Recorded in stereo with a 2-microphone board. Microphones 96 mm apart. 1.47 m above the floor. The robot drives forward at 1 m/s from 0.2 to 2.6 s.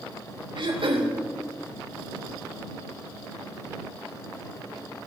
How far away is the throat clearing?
About 2 m.